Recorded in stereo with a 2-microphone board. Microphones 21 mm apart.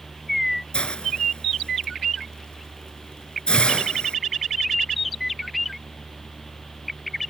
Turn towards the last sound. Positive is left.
turn(degrees=60)  # may be behind; listen again after turning